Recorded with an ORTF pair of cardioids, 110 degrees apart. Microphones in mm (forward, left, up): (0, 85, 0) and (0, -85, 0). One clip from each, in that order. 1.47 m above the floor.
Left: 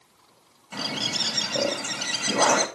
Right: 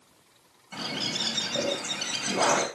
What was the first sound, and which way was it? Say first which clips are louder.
A bird: left 3 dB; 30° left.